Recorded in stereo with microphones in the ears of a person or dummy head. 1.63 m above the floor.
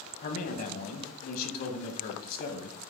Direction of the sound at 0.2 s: 60° left (ahead or behind).